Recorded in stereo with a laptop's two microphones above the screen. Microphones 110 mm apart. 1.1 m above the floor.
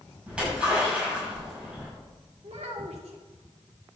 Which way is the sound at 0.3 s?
10° right (ahead or behind).